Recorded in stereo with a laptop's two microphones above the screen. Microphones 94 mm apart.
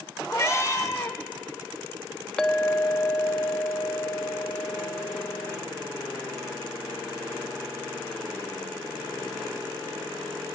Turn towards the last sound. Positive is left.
turn(degrees=10)  # may be behind; listen again after turning